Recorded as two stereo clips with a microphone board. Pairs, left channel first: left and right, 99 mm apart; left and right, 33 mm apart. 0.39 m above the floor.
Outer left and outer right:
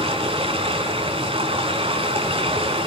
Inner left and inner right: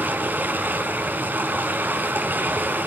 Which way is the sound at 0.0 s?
75° right (ahead or behind).